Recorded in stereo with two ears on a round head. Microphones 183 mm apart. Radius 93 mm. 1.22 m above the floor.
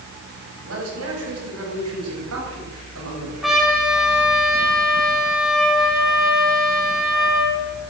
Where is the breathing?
I don't hear breathing.